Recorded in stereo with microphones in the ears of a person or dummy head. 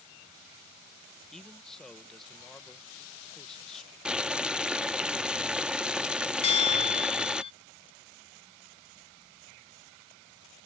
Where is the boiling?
5° right (ahead or behind).